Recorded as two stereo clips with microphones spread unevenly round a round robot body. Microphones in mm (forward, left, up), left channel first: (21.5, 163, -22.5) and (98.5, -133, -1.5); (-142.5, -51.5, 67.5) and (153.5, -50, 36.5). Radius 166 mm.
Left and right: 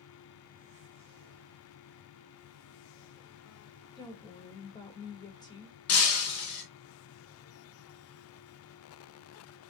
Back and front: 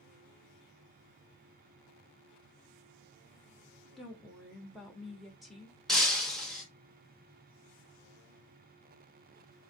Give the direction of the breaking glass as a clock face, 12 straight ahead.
9 o'clock.